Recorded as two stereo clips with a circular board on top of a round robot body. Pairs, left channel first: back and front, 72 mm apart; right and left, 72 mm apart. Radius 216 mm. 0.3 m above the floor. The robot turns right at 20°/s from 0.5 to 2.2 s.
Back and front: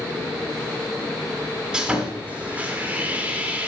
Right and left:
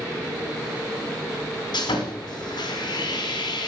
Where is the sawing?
80° right, 2 m; by 3.7 s 70° right, 2 m.